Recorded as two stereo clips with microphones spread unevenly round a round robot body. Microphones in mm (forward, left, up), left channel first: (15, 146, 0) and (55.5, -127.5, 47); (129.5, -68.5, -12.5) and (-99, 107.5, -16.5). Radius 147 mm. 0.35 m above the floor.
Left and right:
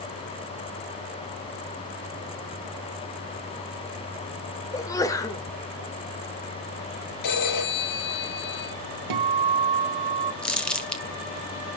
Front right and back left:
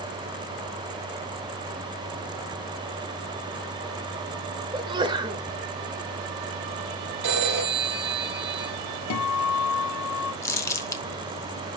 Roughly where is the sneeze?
Left.